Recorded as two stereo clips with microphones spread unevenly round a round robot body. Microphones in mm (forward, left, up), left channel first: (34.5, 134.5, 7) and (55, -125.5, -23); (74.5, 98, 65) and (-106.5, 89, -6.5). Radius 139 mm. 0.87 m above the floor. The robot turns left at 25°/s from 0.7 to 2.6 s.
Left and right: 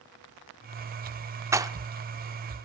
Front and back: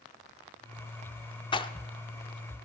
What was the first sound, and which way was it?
A rattle, 5° right.